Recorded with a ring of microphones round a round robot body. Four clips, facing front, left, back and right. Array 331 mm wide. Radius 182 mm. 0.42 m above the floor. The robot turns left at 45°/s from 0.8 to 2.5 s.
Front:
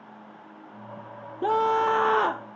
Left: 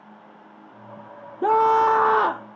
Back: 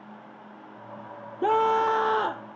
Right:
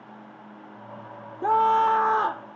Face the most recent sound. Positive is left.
turn(degrees=55)